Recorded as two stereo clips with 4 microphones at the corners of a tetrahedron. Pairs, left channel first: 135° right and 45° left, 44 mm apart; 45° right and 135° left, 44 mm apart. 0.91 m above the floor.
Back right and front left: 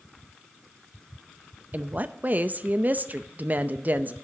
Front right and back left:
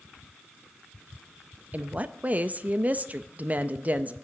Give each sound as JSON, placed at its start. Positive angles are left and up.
{"t": 1.7, "sound": "a woman speaking", "azimuth_deg": 85, "distance_m": 0.5}